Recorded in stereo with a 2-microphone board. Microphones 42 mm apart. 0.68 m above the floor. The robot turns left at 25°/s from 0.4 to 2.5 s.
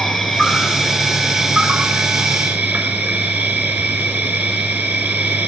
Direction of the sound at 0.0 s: Straight ahead.